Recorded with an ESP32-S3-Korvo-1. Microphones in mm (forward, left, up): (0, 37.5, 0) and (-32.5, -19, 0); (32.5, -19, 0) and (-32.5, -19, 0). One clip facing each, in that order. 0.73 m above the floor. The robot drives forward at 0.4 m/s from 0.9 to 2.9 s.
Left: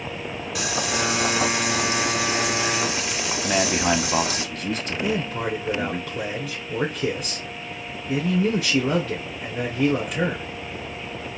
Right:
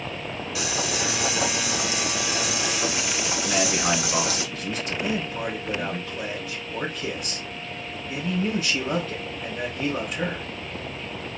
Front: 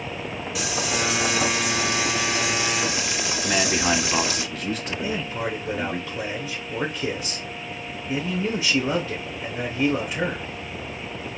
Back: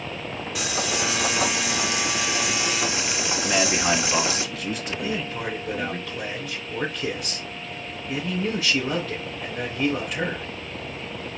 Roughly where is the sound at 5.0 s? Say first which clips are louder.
Left 4 dB, front 1 dB; left.